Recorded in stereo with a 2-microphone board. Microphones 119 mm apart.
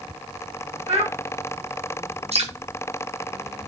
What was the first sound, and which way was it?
A child speaking, 65° right (ahead or behind).